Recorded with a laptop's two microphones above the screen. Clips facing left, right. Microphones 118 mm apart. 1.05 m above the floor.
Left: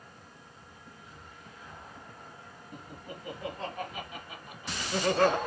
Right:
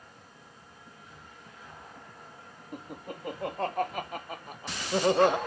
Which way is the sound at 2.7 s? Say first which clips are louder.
Right 5 dB; 55° right (ahead or behind).